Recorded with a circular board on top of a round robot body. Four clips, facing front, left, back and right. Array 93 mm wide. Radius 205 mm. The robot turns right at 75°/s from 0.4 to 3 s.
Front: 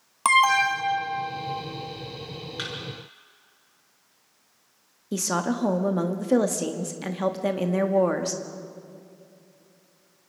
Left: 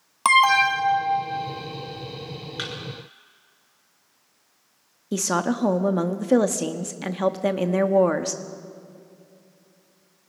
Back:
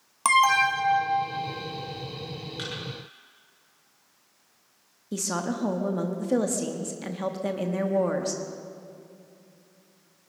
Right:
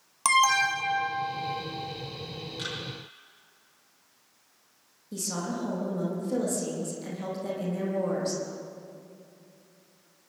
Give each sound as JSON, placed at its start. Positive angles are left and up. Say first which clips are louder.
{"t": 0.2, "sound": "an alarm", "louder": "left 6 dB, front 1 dB", "azimuth_deg": 75, "distance_m": 1.7}
{"t": 2.6, "sound": "a thud", "louder": "left 4 dB, front 1 dB", "azimuth_deg": 70, "distance_m": 6.5}
{"t": 5.1, "sound": "a woman speaking", "louder": "left 10 dB, front 4 dB", "azimuth_deg": 70, "distance_m": 1.6}